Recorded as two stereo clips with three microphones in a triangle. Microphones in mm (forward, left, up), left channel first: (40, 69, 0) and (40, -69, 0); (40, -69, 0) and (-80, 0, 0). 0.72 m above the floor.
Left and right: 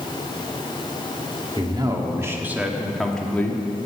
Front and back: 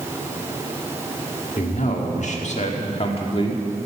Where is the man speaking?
35° right, 1.7 m; by 3.9 s 25° left, 1.6 m.